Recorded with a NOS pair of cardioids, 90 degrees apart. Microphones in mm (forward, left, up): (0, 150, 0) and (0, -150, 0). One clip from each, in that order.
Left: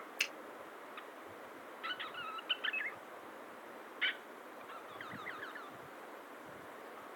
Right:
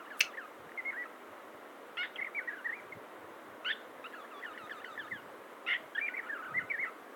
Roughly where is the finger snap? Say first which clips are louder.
Right 5 dB; ahead right.